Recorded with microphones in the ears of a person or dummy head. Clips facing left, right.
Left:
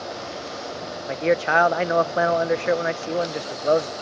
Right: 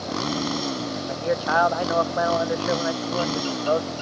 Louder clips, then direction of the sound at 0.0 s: Right 6 dB; 75° right (ahead or behind).